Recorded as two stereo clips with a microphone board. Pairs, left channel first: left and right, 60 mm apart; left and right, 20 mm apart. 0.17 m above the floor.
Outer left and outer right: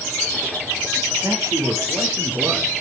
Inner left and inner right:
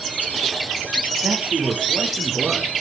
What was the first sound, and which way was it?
A man speaking, 65° right (ahead or behind).